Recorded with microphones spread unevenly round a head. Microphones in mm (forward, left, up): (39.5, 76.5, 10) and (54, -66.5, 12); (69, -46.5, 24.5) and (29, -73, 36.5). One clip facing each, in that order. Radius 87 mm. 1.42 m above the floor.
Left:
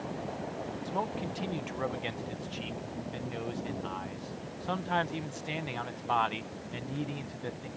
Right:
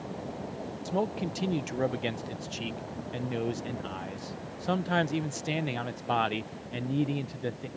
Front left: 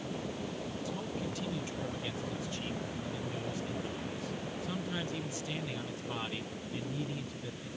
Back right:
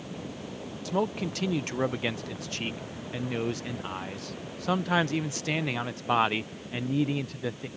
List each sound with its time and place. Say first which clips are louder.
0.8 s a man speaking: right 6 dB, back right 14 dB; 140° right